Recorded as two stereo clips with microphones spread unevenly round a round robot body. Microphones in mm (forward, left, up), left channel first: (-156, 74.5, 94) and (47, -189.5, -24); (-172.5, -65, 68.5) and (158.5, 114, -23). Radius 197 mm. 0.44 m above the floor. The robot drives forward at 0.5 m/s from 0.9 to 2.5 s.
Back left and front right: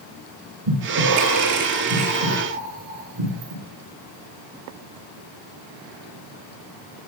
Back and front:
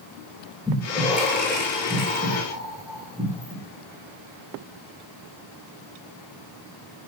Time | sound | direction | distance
0.7 | breathing | 60° right | 8.5 m